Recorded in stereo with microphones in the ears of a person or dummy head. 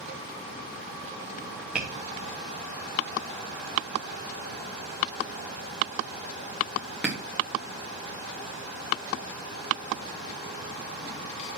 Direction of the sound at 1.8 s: 10° right (ahead or behind).